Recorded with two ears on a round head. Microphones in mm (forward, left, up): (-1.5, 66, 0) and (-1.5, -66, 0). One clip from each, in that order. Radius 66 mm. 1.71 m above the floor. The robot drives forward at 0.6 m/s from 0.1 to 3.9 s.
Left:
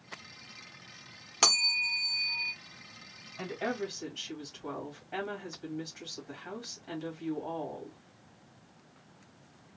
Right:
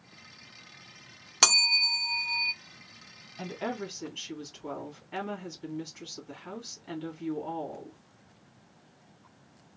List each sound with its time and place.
1.4 s a bell: 25° right (ahead or behind), 0.7 m; by 2.5 s 30° right (ahead or behind), 0.6 m
3.4 s a woman speaking: 5° right (ahead or behind), 1.7 m